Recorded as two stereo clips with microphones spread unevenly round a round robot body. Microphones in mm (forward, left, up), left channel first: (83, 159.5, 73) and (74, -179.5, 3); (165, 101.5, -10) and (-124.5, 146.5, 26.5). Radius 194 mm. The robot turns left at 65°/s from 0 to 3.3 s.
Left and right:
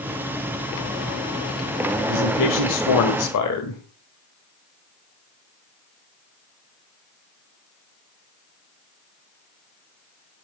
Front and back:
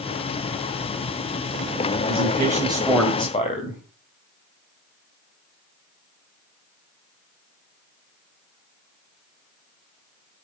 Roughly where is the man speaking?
Behind left.